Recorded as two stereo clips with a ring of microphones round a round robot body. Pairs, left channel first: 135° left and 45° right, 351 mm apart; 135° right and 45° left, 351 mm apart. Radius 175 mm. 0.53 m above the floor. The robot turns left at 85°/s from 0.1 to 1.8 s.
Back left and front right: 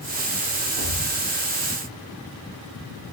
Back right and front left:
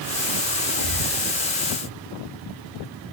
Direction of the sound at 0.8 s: 105° right.